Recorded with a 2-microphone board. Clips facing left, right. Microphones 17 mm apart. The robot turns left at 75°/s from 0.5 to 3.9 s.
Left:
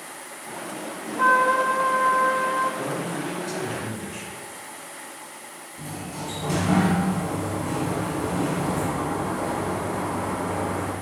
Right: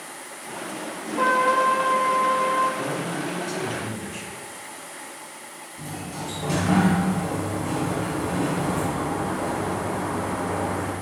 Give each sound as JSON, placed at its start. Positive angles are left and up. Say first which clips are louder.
{"t": 1.2, "sound": "a trumpet", "louder": "left 1 dB", "azimuth_deg": -55, "distance_m": 0.7}
{"t": 2.8, "sound": "a man speaking", "louder": "right 1 dB", "side_deg": 25, "distance_m": 1.2}
{"t": 5.8, "sound": "a sliding door", "louder": "even", "side_deg": -5, "distance_m": 1.4}